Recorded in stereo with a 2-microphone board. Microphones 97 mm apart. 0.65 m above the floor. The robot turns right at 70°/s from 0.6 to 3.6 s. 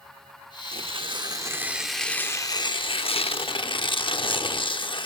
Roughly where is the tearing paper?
Right.